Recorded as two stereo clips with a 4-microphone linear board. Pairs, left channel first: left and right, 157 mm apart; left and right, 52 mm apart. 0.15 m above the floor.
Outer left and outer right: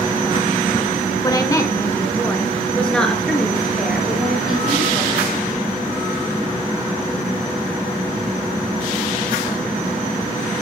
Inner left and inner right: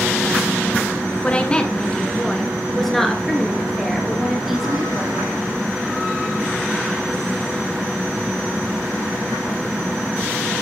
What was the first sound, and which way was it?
A woman speaking, 25° left (ahead or behind).